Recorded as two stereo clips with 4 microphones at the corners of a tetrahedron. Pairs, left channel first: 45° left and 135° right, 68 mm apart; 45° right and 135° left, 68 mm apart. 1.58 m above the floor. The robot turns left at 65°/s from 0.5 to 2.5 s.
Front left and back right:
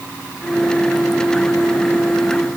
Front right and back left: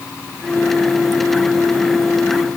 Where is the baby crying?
I don't hear a baby crying.